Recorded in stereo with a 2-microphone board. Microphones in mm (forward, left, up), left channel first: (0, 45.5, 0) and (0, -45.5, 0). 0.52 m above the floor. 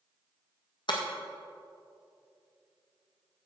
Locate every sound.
0.9 s breaking glass: 60° left (ahead or behind), 1.8 m